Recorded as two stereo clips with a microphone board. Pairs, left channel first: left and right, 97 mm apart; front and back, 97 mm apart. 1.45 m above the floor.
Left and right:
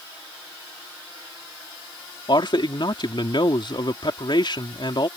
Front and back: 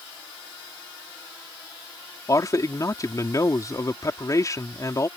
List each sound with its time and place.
2.3 s a man speaking: 55° left